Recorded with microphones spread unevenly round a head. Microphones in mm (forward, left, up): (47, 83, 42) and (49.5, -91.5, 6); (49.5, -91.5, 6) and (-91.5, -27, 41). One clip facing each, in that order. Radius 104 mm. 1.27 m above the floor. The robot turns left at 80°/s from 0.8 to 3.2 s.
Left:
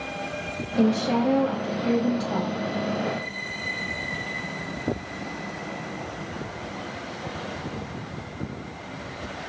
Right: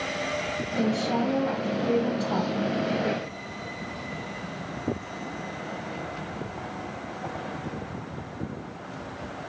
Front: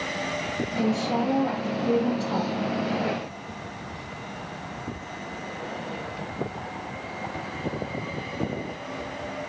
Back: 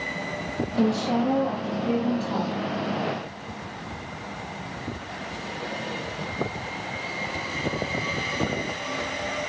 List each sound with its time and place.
0.8 s a woman speaking: 145° left, 1.1 m; by 2.5 s 5° left, 1.1 m